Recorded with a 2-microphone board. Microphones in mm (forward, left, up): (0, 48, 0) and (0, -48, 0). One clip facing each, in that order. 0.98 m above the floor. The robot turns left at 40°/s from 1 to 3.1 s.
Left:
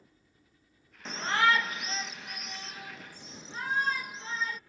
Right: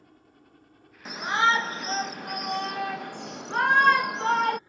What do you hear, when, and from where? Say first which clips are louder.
0.0 s a helicopter: right 9 dB; 60° right (ahead or behind); by 4.7 s 20° right (ahead or behind)
1.1 s a shout: right 3 dB; 10° right; by 4.6 s 90° right